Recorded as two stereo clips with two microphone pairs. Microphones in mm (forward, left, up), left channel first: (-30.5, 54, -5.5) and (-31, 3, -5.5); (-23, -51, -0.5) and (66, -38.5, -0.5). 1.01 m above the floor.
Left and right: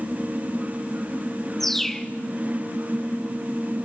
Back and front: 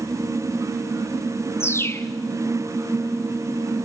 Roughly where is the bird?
Behind.